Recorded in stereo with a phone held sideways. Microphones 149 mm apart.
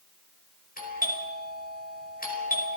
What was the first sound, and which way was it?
A doorbell, 75° left (ahead or behind).